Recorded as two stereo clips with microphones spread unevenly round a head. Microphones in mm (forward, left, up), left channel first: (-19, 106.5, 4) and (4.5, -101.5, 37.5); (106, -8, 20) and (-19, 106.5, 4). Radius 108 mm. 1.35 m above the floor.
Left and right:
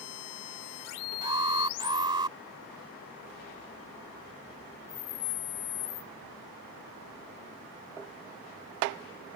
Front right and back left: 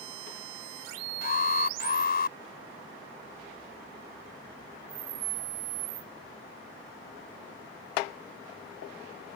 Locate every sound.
1.2 s an alarm: 15° right